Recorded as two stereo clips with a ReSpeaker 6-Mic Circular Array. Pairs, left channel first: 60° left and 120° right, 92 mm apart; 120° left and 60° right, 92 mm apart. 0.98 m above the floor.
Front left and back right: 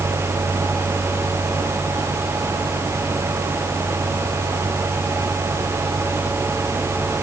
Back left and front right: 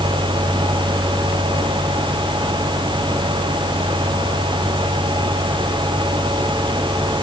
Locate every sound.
Only background noise.